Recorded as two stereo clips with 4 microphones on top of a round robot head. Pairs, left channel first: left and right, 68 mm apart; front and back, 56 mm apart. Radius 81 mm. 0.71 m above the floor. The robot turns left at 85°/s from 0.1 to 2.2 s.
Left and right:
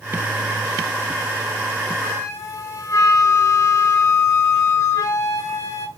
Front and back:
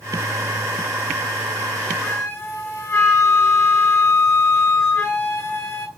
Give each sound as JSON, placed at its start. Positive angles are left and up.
{"t": 2.0, "sound": "a flute", "azimuth_deg": 60, "distance_m": 2.5}